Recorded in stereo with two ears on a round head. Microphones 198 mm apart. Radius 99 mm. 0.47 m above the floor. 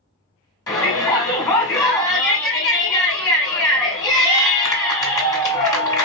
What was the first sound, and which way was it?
A shout, 15° left (ahead or behind).